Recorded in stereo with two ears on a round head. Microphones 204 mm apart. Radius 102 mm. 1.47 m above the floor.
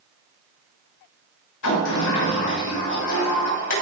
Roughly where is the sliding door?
Left.